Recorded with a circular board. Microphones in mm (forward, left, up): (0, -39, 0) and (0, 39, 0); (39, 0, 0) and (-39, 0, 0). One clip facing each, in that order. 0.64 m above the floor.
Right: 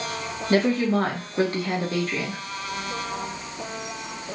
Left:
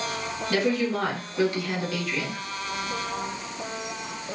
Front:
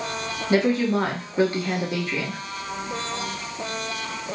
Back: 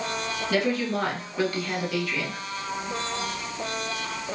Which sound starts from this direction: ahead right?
A woman speaking, at 0.5 s.